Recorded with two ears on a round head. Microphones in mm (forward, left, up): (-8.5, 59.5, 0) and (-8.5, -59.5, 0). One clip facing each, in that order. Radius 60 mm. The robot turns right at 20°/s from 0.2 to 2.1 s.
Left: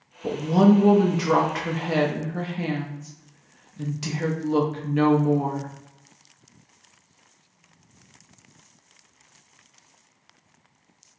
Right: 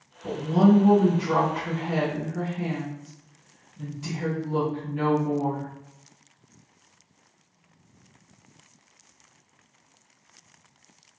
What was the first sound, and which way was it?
A woman speaking, 65° left.